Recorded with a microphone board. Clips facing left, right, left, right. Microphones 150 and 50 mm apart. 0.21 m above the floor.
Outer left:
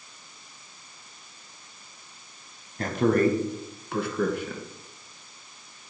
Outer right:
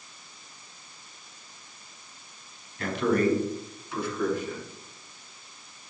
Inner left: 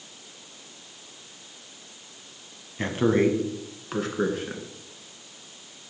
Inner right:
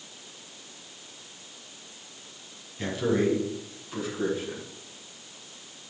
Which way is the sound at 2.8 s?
35° left (ahead or behind).